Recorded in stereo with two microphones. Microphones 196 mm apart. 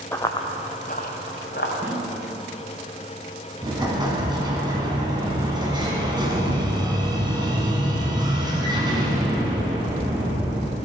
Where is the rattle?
No rattle in this recording.